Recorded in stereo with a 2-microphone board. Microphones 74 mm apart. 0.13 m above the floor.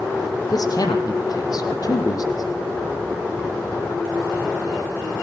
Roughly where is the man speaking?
Left.